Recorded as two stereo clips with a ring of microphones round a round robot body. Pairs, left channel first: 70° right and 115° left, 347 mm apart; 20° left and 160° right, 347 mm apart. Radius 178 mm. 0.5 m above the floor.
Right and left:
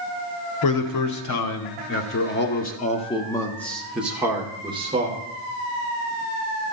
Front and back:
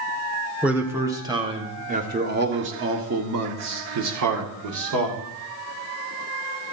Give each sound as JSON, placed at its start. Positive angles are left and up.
{"t": 0.6, "sound": "a man speaking", "azimuth_deg": -70, "distance_m": 1.9}